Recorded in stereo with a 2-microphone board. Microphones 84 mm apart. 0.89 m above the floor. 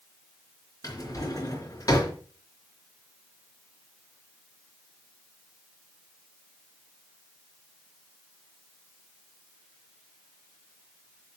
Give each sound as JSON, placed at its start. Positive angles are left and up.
{"t": 0.8, "sound": "a drawer", "side_deg": 40, "distance_m": 3.5}